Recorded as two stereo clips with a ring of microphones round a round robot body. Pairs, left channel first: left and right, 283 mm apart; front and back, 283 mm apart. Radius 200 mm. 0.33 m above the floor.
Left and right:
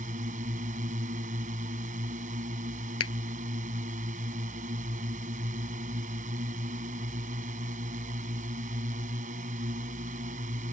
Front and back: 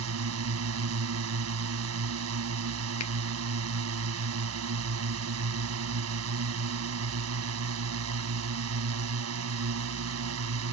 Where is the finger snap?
55° left.